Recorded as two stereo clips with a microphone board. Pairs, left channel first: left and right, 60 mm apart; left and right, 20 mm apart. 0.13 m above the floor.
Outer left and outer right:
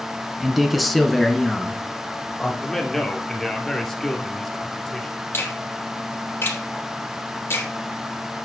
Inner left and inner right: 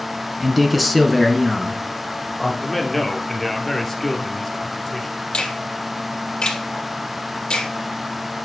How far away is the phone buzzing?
No phone buzzing in this recording.